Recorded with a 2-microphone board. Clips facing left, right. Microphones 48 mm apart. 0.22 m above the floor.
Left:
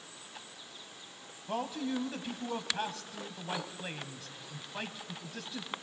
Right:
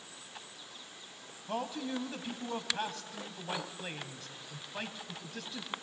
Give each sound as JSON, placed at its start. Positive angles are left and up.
{"t": 1.5, "sound": "a man speaking", "side_deg": 0, "distance_m": 1.5}